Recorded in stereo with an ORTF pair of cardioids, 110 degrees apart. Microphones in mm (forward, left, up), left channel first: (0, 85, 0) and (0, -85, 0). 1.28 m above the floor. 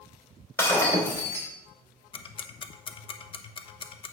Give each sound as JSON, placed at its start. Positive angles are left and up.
{"t": 0.6, "sound": "breaking glass", "azimuth_deg": 15, "distance_m": 3.0}
{"t": 2.1, "sound": "ticking", "azimuth_deg": 30, "distance_m": 0.8}